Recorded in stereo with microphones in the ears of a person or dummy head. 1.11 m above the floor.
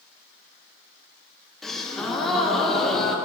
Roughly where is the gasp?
Centre.